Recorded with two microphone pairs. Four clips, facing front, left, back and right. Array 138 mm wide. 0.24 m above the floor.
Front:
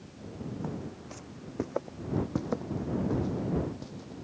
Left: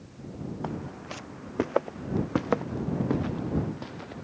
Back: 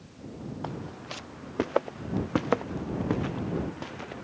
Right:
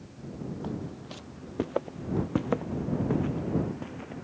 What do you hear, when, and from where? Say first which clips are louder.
0.6 s footsteps: left 1 dB, back 1 dB; 135° left; by 4.2 s 155° left